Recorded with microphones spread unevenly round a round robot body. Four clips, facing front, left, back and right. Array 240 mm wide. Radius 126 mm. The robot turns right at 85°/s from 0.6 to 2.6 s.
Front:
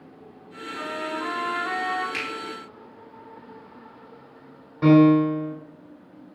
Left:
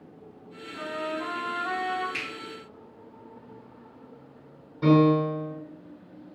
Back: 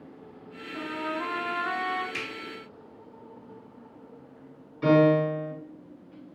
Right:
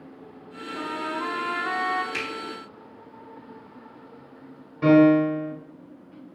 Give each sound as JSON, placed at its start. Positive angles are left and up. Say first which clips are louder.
{"t": 0.7, "sound": "a trumpet", "louder": "right 2 dB, front 2 dB", "azimuth_deg": -175, "distance_m": 0.7}
{"t": 2.1, "sound": "a finger snap", "louder": "right 5 dB, front 4 dB", "azimuth_deg": -60, "distance_m": 1.1}
{"t": 4.8, "sound": "a piano", "louder": "right 4 dB, front 5 dB", "azimuth_deg": -20, "distance_m": 1.3}